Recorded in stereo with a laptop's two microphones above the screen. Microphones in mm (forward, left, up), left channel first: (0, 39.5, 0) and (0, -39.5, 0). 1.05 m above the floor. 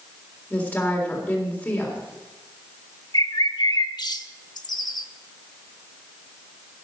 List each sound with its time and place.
0.5 s a woman speaking: 25° left (ahead or behind), 3.5 m
3.1 s a bird: 60° left (ahead or behind), 1.0 m